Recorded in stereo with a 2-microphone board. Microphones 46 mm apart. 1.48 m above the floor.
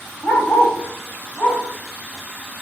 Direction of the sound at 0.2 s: 60° left (ahead or behind).